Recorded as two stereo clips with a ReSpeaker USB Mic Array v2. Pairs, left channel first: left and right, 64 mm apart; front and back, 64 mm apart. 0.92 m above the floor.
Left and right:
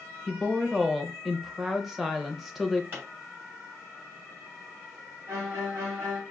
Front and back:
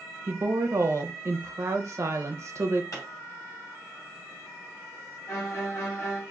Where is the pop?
35° right, 2.5 m.